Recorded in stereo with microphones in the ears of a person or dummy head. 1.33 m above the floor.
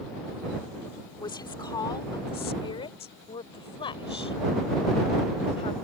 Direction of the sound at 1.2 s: 25° left (ahead or behind).